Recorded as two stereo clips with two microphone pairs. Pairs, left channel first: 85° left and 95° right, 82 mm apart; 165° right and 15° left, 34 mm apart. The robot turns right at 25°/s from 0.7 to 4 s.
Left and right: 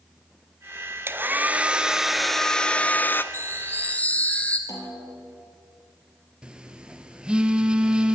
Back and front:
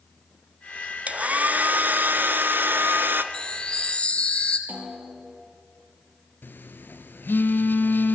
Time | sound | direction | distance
1.1 | a hair dryer | 35° right | 0.9 m
3.3 | a chime | 135° left | 1.8 m
4.7 | a snare drum | 40° left | 5.5 m
6.4 | a phone buzzing | 175° right | 1.1 m